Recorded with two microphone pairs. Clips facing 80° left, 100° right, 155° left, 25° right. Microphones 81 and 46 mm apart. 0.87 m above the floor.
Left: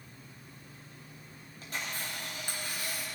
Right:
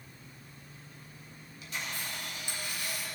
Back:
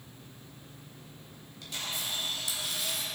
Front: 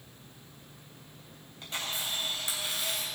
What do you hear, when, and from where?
1.6 s a camera shutter: 35° left, 3.5 m